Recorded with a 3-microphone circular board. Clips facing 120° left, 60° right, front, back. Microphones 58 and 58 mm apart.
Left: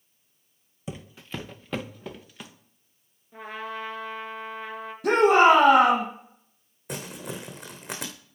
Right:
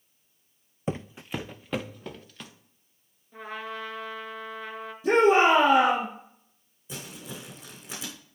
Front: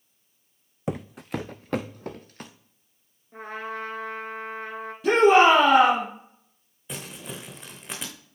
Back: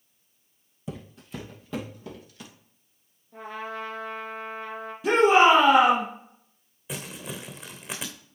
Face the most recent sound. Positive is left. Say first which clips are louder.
# left 5 dB, back 1 dB
turn(degrees=95)